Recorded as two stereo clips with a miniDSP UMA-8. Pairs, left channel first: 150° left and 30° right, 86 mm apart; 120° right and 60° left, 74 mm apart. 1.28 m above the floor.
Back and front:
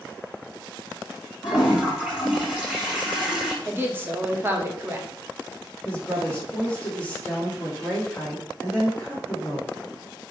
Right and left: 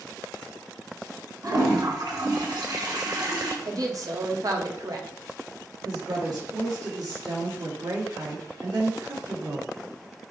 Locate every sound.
1.4 s a toilet flushing: 55° left, 2 m
3.6 s a woman speaking: 35° left, 1.0 m
5.8 s a woman speaking: 75° left, 1.7 m